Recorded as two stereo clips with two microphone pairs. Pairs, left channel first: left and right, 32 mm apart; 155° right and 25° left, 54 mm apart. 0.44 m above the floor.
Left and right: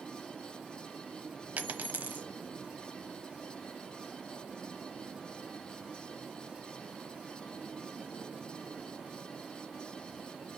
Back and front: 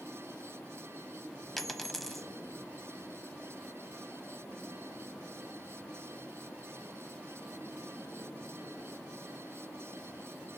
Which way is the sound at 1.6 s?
65° right.